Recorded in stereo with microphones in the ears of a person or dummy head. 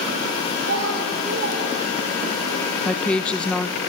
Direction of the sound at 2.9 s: 10° left (ahead or behind).